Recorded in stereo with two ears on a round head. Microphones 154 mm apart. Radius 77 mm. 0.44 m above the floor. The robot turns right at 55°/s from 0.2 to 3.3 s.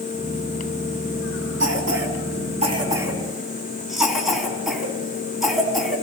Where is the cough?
75° right (ahead or behind), 4 m; by 6.0 s centre (ahead or behind), 4 m.